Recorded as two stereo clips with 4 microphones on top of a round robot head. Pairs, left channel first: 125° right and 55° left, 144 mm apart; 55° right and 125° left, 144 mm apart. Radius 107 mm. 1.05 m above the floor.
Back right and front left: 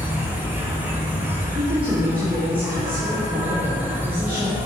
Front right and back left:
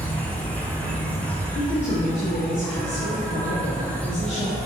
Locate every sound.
0.0 s an insect: 5° left, 1.5 m
1.6 s a woman speaking: 25° right, 1.8 m